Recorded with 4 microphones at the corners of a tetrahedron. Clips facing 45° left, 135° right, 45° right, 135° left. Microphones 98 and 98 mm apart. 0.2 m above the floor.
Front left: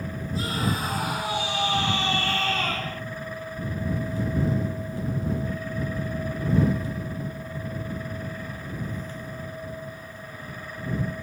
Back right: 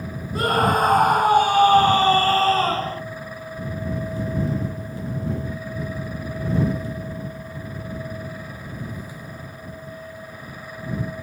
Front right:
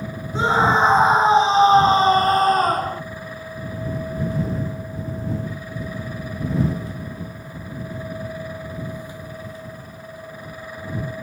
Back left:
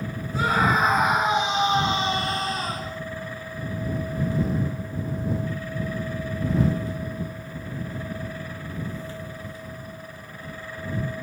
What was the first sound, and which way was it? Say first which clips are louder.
A scream: back right 10 dB, front right 4 dB; 110° right.